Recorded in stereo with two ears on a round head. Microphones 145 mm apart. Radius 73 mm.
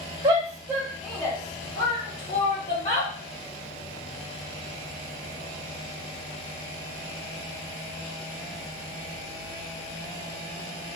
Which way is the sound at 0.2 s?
20° right (ahead or behind).